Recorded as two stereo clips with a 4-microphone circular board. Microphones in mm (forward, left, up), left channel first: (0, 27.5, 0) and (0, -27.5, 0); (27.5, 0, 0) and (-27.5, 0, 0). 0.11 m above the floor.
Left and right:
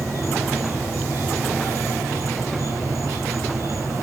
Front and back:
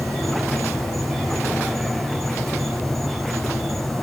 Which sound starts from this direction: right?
An insect, at 0.0 s.